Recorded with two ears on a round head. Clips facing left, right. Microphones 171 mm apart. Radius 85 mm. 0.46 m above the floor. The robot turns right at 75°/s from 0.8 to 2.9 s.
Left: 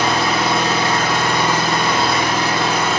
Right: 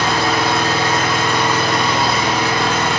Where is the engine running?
20° left, 2.0 m; by 3.0 s 175° left, 2.0 m.